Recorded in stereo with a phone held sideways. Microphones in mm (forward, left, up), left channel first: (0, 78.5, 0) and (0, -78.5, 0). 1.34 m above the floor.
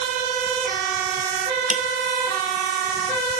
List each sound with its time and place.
1.7 s a snare drum: 50° right (ahead or behind)